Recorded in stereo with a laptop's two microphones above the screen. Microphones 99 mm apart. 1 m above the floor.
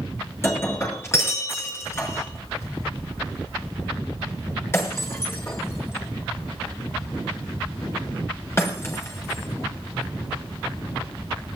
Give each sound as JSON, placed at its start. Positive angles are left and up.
{"t": 0.4, "sound": "breaking glass", "side_deg": 25, "distance_m": 6.0}